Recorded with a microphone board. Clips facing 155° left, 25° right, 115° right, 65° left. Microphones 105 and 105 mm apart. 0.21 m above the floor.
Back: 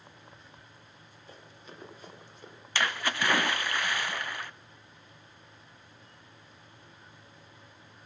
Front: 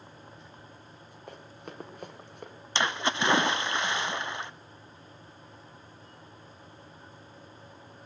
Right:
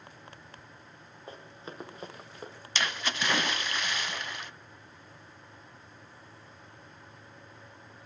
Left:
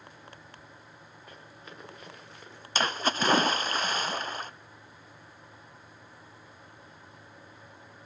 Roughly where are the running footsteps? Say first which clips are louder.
Front 6 dB, right 6 dB; ahead right.